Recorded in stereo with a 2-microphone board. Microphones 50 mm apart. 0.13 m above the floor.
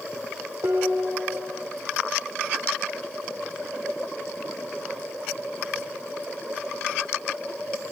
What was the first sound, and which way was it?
Dishes clattering, 80° right.